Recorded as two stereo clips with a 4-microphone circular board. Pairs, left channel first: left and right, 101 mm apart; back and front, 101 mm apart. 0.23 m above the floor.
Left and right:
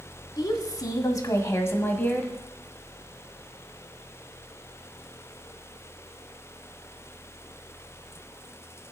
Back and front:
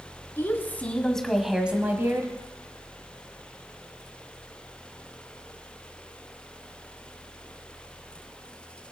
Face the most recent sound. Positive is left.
turn(degrees=25)